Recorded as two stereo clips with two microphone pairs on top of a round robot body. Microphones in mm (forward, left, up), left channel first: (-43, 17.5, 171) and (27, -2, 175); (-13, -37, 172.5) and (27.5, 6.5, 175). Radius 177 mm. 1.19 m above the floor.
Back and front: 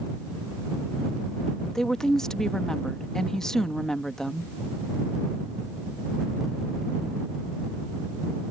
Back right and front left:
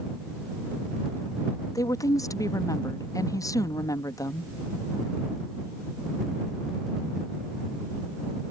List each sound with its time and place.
1.8 s a woman speaking: 115° right